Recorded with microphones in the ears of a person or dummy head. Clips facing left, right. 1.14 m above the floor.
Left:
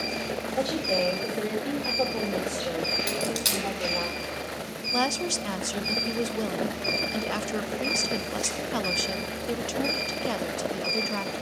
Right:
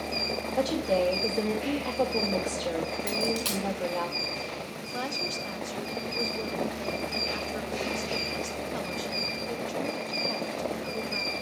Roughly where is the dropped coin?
Centre.